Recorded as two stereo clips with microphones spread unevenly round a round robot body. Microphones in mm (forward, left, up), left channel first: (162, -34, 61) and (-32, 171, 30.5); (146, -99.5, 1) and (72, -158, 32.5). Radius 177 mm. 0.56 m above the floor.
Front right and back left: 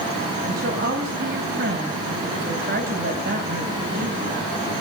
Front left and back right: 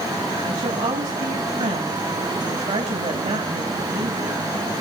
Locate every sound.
0.4 s a woman speaking: 165° right, 4 m